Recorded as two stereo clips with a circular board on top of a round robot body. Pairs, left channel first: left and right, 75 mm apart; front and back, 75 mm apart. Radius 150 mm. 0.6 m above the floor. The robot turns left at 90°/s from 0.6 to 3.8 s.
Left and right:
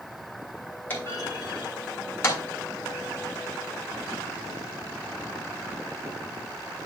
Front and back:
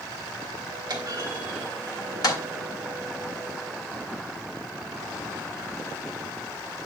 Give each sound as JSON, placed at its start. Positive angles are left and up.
{"t": 0.9, "sound": "a clunk", "azimuth_deg": 155, "distance_m": 3.5}